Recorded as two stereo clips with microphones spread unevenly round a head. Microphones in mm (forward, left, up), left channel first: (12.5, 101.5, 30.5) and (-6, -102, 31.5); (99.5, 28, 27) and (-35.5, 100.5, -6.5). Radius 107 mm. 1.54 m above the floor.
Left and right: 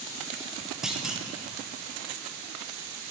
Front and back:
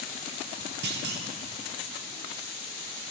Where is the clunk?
Straight behind, 1.1 m.